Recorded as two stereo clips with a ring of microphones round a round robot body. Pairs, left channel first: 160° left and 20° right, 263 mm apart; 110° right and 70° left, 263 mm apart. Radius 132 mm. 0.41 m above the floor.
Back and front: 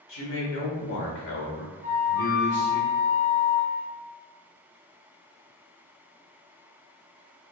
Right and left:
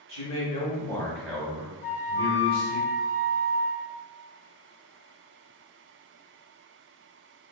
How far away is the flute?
About 1.9 m.